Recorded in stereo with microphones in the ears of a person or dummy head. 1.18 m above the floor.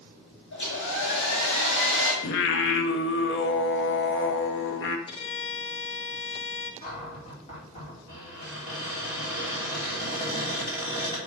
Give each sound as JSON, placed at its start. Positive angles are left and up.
{"t": 0.5, "sound": "a hair dryer", "side_deg": 70, "distance_m": 2.5}
{"t": 2.2, "sound": "singing", "side_deg": 55, "distance_m": 0.8}
{"t": 5.1, "sound": "a violin", "side_deg": 25, "distance_m": 0.7}
{"t": 6.8, "sound": "a cupboard door", "side_deg": 40, "distance_m": 3.0}